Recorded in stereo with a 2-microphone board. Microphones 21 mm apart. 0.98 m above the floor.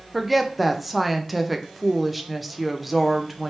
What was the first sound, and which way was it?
A woman speaking, 5° right (ahead or behind).